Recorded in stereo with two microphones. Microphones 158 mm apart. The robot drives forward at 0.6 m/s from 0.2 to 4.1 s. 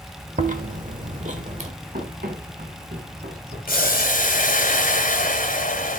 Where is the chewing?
50° right (ahead or behind), 1.2 m; by 1.7 s 45° right (ahead or behind), 1.3 m.